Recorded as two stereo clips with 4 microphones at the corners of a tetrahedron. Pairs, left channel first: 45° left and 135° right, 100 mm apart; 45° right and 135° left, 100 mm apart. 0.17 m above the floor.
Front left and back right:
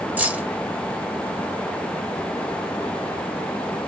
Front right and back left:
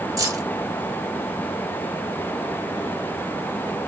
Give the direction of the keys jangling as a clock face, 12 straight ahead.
7 o'clock.